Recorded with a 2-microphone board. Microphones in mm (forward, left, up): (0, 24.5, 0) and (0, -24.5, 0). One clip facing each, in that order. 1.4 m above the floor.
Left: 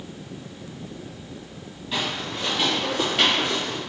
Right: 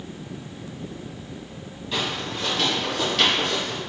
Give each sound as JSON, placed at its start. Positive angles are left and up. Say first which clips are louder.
{"t": 1.9, "sound": "footsteps", "louder": "even", "side_deg": 5, "distance_m": 1.9}